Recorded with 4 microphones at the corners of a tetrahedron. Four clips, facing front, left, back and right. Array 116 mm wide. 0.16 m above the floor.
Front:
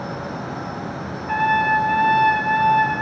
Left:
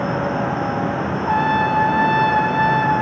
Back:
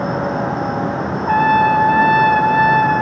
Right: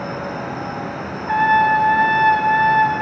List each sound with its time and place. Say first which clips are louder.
1.3 s a trumpet: right 4 dB, back 5 dB; 170° left, 0.7 m